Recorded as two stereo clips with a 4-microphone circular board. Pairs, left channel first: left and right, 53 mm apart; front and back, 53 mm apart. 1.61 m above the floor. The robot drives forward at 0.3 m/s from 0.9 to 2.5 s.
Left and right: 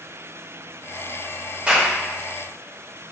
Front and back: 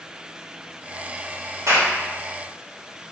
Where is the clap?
160° right, 3 m.